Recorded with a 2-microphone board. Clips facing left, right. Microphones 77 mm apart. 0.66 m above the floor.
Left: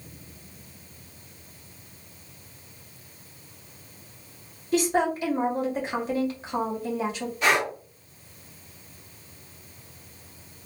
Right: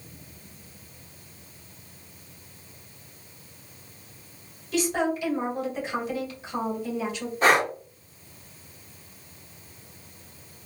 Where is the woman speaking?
35° left (ahead or behind), 1.8 m.